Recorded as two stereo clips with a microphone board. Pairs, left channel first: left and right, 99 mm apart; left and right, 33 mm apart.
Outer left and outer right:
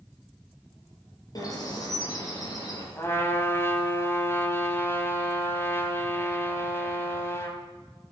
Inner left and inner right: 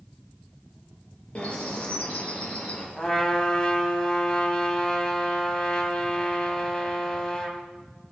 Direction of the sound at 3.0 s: 25° left (ahead or behind).